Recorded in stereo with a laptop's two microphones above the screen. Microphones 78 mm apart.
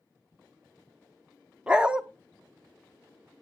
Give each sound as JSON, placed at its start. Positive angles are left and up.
{"t": 1.7, "sound": "a dog barking", "side_deg": -10, "distance_m": 0.5}